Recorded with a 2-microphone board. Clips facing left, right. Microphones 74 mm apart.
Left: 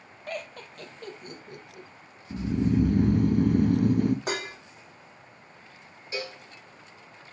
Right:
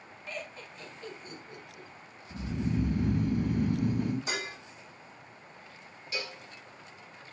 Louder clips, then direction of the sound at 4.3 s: Left 4 dB; 65° left (ahead or behind).